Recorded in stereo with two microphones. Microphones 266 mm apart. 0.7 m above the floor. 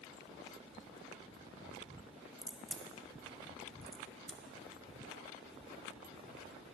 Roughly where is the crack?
Centre.